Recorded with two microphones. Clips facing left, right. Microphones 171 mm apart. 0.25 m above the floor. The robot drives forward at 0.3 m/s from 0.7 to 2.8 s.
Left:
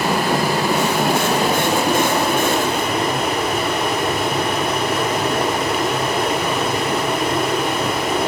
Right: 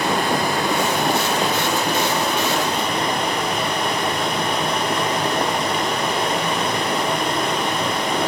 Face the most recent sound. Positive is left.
turn(degrees=5)  # may be behind; listen again after turning